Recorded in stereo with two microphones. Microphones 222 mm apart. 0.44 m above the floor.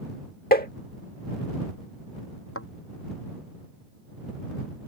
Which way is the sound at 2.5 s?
85° left.